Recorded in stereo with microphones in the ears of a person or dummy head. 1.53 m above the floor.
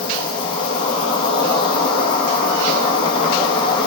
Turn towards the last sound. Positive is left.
turn(degrees=30)  # may be behind; listen again after turning